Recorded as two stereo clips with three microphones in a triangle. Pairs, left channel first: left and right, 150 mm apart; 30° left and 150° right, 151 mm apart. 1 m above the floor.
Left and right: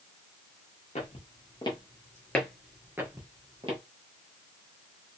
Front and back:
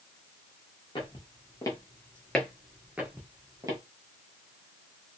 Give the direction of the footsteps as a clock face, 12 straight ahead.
9 o'clock.